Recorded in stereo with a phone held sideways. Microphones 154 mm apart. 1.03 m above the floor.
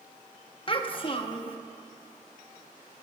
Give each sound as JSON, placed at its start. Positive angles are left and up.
{"t": 0.7, "sound": "a child speaking", "side_deg": 35, "distance_m": 0.9}